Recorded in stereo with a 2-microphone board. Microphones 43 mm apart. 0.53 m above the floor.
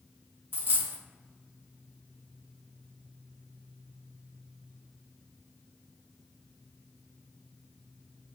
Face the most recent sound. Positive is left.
turn(degrees=-50)  # may be behind; listen again after turning